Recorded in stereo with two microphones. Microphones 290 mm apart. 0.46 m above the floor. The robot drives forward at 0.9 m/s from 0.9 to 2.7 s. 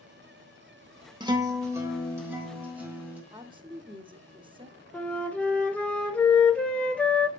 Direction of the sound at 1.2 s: 15° right (ahead or behind).